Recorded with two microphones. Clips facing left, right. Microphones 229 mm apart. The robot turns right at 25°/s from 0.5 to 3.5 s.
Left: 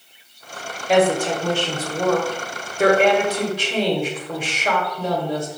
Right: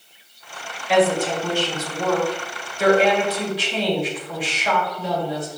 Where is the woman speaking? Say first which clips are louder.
Left 1 dB; 55° left, 1.3 m; by 5.5 s 120° left, 1.3 m.